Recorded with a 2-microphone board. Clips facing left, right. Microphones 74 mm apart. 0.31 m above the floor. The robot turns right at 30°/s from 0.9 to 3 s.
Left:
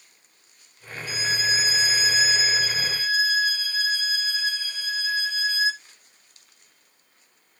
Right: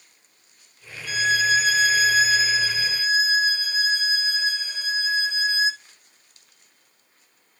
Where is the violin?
85° right, 0.6 m; by 5.8 s 25° right, 0.6 m.